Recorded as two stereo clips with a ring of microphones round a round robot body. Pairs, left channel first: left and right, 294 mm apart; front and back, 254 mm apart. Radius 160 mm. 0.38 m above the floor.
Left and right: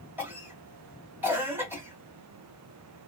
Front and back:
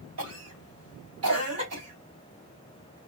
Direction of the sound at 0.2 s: 175° right.